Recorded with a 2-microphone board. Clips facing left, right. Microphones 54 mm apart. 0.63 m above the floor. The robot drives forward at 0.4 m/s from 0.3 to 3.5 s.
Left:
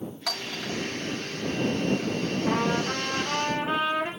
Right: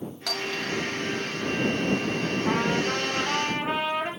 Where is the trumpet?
50° right (ahead or behind), 6.5 m; by 4.1 s 45° right (ahead or behind), 6.5 m.